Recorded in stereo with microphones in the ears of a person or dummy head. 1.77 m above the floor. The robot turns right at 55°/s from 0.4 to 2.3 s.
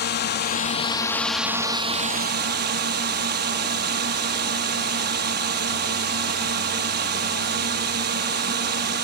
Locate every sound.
0.0 s a drone: 125° left; by 9.0 s 130° right